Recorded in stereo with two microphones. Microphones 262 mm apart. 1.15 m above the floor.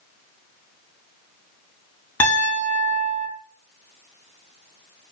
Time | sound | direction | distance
2.2 | a piano | 5° left (ahead or behind) | 2.5 m